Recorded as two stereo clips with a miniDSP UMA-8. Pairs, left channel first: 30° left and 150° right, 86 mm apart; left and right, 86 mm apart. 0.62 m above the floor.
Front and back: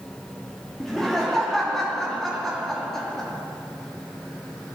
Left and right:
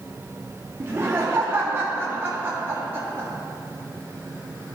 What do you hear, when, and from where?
0.8 s laughter: 55° right, 0.8 m